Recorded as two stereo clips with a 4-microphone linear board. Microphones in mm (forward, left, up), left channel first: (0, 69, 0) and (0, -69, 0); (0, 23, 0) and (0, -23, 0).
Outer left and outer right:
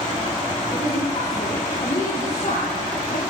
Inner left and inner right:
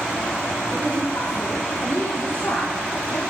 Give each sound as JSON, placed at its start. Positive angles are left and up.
{"t": 0.7, "sound": "a woman speaking", "side_deg": 40, "distance_m": 9.0}